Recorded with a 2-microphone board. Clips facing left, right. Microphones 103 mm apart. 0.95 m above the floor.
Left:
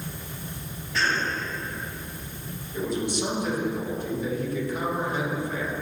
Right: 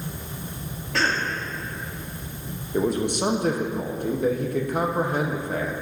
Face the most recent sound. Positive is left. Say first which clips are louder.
# right 5 dB
turn(degrees=-55)  # may be behind; listen again after turning